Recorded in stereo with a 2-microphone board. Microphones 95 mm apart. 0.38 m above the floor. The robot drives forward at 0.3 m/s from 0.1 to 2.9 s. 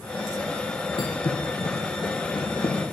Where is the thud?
65° left (ahead or behind), 1.5 m; by 2.8 s 50° left (ahead or behind), 1.9 m.